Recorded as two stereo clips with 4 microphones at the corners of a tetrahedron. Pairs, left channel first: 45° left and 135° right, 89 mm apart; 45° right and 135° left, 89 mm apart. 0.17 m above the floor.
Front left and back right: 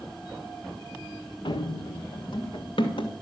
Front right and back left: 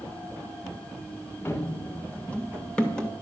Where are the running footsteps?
20° left, 1.1 m; by 3.1 s 35° left, 2 m.